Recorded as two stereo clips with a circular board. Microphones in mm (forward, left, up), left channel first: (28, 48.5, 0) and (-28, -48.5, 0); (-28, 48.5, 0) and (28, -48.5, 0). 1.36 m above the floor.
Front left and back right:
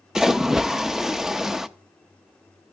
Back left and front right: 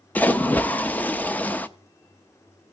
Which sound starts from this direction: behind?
A splash, at 0.1 s.